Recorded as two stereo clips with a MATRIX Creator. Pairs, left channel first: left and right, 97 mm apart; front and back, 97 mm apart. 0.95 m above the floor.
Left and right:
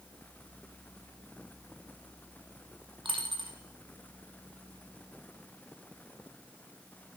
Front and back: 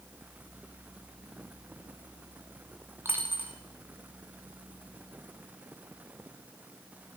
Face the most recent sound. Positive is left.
turn(degrees=-115)